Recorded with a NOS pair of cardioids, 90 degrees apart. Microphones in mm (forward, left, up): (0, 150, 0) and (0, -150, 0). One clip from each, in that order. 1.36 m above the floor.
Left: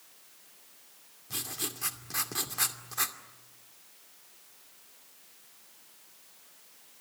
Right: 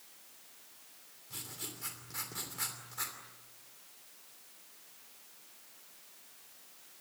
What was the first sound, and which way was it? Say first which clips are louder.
Writing: left 8 dB; 55° left.